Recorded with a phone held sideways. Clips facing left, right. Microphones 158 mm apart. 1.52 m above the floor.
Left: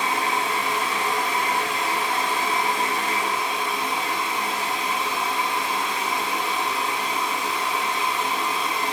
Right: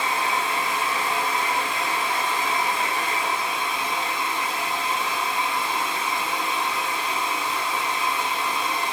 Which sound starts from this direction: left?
A fan, at 0.0 s.